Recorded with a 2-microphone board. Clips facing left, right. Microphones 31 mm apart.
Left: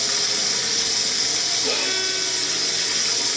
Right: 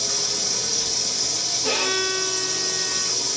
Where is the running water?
65° left (ahead or behind), 0.8 m.